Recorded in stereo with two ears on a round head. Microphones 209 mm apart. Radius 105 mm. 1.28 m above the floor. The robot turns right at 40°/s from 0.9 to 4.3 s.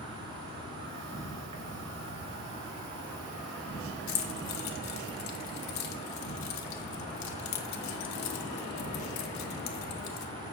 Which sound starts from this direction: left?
Keys jangling, at 4.1 s.